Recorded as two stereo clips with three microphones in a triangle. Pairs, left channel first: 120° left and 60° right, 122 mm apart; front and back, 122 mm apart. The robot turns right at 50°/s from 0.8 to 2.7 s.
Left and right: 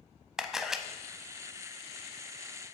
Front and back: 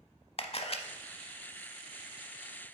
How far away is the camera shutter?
About 0.6 m.